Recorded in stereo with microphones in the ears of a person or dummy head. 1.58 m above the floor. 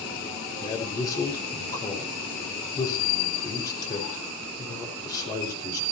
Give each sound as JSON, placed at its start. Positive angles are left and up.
{"t": 0.6, "sound": "a man speaking", "side_deg": 25, "distance_m": 4.5}